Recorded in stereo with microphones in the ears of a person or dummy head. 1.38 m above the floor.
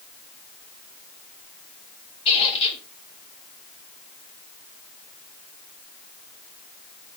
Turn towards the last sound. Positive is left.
turn(degrees=25)  # may be behind; listen again after turning